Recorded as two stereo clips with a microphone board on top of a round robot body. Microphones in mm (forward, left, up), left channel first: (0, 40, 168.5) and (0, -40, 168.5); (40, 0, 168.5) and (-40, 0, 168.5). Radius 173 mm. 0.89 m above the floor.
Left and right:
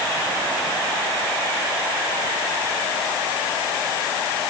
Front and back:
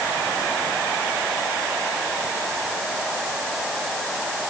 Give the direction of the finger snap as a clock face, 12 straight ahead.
No finger snap in this recording.